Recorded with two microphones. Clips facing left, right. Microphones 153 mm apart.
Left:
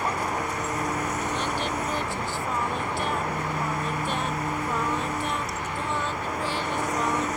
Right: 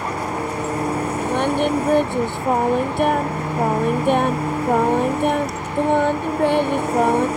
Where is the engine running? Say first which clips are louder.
Right 4 dB; 30° right (ahead or behind).